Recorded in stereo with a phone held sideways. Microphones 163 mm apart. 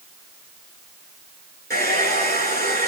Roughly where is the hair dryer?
Right.